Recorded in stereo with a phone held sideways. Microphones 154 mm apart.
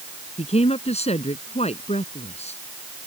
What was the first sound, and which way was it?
A woman speaking, 45° left (ahead or behind).